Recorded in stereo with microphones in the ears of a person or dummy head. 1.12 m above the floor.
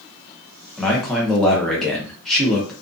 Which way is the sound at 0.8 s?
5° left (ahead or behind).